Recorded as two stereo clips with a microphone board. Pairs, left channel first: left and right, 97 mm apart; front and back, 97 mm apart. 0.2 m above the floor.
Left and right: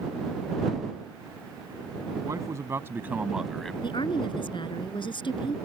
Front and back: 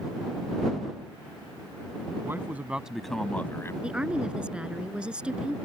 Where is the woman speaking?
100° left.